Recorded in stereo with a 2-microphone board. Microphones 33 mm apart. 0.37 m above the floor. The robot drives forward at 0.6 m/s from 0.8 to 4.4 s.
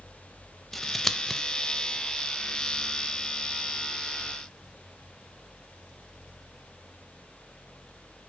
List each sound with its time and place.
0.7 s scissors: 5° left (ahead or behind), 0.8 m; by 1.4 s 10° left (ahead or behind), 0.5 m